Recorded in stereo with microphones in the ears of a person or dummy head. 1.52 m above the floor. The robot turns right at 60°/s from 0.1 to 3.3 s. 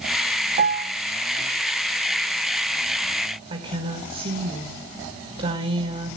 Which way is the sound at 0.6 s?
40° right (ahead or behind).